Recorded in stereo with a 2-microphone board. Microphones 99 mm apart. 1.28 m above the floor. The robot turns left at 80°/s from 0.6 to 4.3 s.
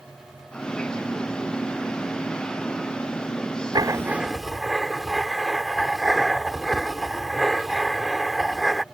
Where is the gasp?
I don't hear a gasp.